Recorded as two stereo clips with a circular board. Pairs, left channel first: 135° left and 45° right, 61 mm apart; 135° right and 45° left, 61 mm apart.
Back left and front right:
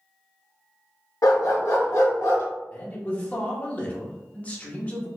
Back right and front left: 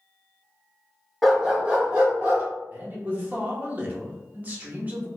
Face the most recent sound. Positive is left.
turn(degrees=90)